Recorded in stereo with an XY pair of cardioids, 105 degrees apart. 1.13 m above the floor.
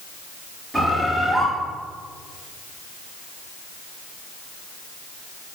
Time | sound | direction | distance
0.7 | a bird | 10° right | 1.1 m